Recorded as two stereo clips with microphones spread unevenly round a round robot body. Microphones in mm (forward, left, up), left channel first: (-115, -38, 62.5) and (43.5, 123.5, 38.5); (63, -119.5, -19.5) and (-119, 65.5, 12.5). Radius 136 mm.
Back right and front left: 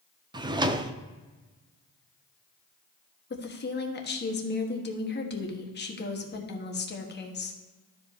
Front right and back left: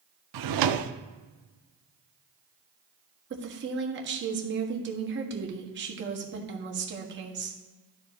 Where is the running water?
I don't hear running water.